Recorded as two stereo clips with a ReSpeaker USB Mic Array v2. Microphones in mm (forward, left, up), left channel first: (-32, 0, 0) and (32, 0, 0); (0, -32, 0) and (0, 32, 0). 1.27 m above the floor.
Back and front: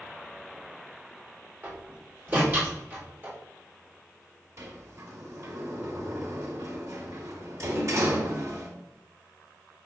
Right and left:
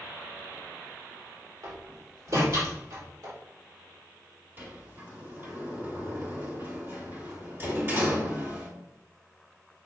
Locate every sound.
1.6 s a door slam: 60° left, 4 m
4.6 s a sliding door: 35° left, 2 m